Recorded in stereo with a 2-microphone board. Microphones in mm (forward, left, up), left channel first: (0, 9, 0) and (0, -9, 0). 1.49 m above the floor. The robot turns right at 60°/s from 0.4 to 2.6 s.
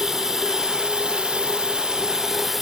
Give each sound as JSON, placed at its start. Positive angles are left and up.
{"t": 0.0, "sound": "running water", "azimuth_deg": -145}